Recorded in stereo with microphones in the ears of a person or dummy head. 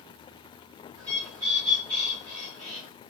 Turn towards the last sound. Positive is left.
turn(degrees=-20)  # may be behind; listen again after turning